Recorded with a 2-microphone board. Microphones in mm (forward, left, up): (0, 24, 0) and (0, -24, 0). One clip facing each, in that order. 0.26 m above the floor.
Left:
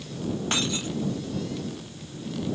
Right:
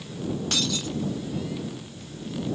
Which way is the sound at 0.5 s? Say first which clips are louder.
Left 1 dB; 25° left (ahead or behind).